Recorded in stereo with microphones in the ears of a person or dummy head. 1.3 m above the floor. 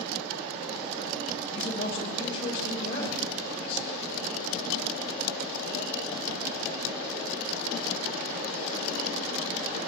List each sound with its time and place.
1.5 s a man speaking: 20° left (ahead or behind), 6.5 m